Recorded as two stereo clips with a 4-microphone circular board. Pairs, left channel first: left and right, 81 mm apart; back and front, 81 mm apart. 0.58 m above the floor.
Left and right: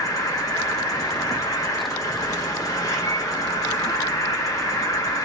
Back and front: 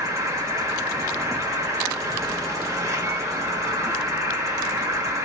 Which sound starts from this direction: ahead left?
An insect, at 0.0 s.